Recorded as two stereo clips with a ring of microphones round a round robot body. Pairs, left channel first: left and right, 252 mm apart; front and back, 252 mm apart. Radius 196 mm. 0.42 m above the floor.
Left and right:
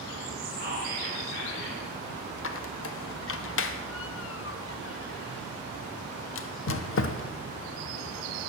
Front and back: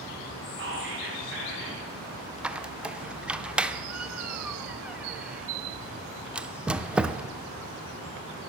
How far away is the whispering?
About 3 m.